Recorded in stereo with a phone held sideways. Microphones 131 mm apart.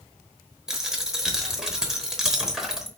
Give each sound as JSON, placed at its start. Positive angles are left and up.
{"t": 0.7, "sound": "a dropped coin", "side_deg": -5, "distance_m": 0.8}